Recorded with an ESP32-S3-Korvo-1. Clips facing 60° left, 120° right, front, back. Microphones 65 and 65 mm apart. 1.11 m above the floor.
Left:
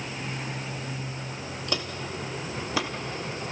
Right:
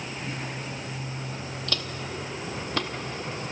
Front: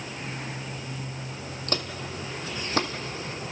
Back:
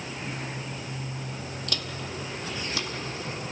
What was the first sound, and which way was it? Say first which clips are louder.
Footsteps: left 2 dB, front 5 dB; straight ahead.